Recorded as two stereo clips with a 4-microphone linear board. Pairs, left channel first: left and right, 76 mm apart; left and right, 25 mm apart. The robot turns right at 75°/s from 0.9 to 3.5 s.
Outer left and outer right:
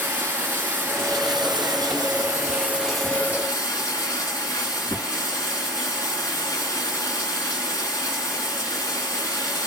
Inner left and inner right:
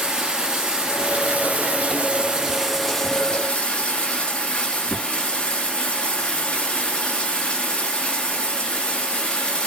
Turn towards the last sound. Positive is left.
turn(degrees=40)